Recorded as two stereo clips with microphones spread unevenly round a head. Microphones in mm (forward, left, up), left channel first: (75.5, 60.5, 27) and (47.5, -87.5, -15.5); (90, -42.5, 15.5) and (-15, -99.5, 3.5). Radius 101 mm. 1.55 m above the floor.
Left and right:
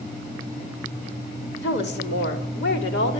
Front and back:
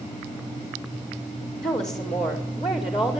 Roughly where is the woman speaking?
Left.